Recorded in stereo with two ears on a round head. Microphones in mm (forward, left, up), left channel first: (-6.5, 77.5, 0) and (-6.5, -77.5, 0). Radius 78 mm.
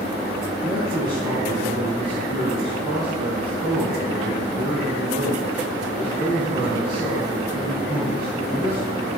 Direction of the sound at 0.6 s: 30° right (ahead or behind).